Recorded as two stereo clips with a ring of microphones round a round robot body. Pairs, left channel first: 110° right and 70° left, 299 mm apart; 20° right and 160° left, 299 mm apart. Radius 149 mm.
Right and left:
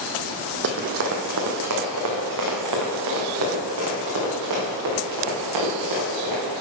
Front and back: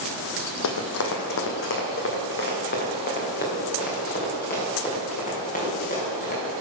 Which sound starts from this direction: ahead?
Running footsteps, at 0.6 s.